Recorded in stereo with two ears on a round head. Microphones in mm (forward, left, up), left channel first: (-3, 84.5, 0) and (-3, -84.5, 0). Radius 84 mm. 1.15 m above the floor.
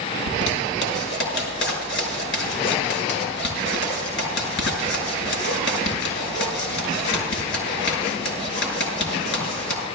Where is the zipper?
75° left (ahead or behind), 5.5 m.